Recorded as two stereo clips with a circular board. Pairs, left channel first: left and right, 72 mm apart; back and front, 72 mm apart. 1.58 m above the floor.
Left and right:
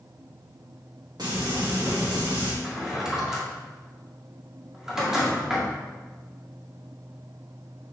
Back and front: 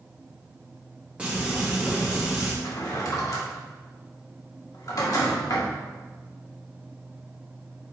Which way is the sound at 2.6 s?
175° right.